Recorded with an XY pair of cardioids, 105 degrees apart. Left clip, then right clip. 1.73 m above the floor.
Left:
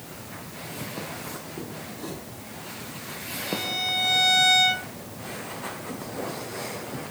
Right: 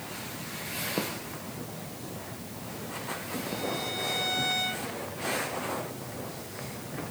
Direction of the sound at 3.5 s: 60° left.